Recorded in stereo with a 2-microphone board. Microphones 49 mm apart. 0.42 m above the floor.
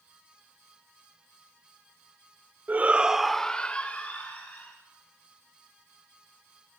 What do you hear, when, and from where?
2.7 s a shout: 35° right (ahead or behind), 1.0 m; by 4.8 s 35° left (ahead or behind), 2.5 m